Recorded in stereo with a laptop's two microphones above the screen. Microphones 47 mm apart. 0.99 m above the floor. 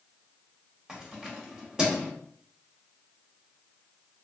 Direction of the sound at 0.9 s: 15° right (ahead or behind).